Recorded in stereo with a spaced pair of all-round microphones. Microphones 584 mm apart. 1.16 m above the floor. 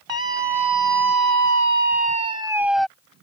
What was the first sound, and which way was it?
A scream, 50° right (ahead or behind).